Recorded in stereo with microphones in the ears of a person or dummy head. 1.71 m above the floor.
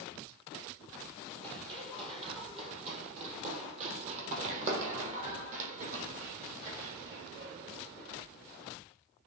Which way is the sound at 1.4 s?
25° right (ahead or behind).